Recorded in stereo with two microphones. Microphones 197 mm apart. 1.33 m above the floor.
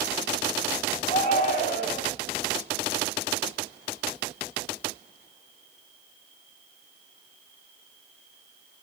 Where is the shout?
35° left (ahead or behind), 10 m.